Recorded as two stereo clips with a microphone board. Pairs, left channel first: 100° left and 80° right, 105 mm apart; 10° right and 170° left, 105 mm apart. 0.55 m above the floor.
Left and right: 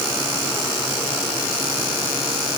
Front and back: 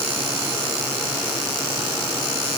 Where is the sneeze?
I don't hear a sneeze.